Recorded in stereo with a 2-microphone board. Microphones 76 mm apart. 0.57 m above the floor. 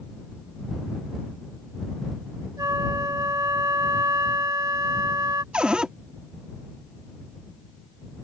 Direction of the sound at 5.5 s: 10° right (ahead or behind).